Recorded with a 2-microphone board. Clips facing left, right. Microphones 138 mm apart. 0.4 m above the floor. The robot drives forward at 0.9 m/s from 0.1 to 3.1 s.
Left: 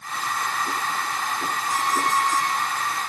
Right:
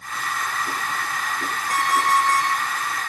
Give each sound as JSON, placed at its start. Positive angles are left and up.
{"t": 1.7, "sound": "an alarm clock", "side_deg": -90, "distance_m": 9.0}